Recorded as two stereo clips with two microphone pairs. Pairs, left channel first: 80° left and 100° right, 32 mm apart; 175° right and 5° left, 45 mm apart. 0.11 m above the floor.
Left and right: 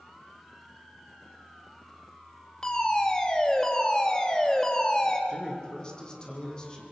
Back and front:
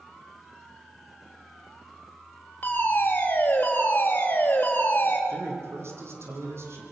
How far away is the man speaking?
About 6 m.